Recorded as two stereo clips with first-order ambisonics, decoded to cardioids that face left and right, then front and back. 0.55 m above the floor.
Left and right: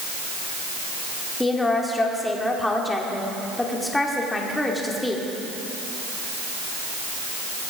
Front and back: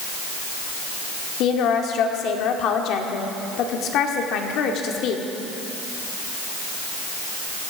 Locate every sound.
1.4 s a woman speaking: 10° left, 1.5 m